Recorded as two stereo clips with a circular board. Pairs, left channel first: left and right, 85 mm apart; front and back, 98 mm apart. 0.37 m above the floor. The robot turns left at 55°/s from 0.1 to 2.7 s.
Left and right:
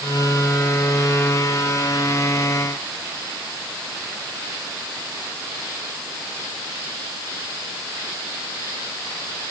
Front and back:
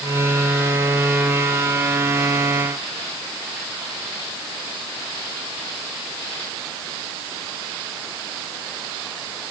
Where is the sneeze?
I don't hear a sneeze.